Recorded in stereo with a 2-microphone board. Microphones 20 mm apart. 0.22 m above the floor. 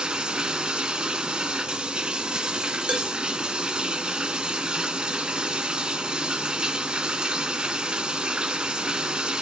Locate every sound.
0.0 s running water: 55° right (ahead or behind), 0.8 m
2.9 s dishes clattering: 65° right (ahead or behind), 2.5 m